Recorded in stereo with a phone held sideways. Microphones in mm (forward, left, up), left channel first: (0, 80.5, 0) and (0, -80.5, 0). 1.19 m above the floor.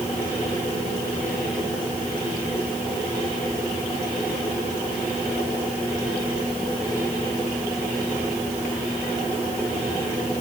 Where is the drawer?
I don't hear a drawer.